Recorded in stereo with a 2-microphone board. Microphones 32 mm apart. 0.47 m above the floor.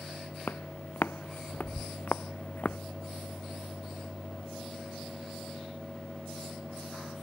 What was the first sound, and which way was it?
Footsteps, 85° left.